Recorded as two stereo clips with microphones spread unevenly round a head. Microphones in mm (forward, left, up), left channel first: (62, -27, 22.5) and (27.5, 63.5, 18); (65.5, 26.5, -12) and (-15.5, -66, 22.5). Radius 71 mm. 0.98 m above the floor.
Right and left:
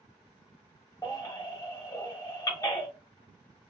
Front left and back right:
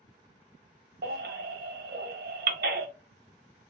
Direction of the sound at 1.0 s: 135° right.